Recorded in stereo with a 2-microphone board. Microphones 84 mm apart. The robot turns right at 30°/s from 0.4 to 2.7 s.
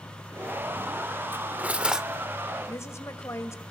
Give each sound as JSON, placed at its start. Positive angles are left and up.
{"t": 1.3, "sound": "cutlery clinking", "side_deg": -25, "distance_m": 0.9}
{"t": 2.7, "sound": "a woman speaking", "side_deg": 35, "distance_m": 2.5}